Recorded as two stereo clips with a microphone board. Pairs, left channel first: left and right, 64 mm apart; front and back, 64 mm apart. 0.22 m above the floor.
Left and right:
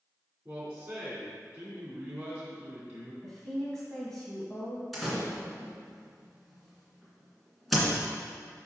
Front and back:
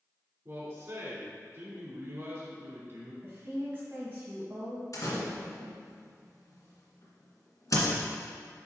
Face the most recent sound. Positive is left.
turn(degrees=0)